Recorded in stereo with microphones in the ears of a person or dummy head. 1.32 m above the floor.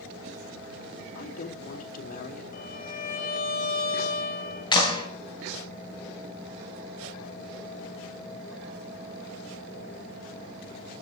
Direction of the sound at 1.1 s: 50° left (ahead or behind).